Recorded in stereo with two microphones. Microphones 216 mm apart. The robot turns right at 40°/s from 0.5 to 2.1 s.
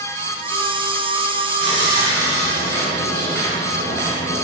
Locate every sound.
1.6 s sawing: 50° left (ahead or behind), 3 m; by 4.5 s 70° left (ahead or behind), 3 m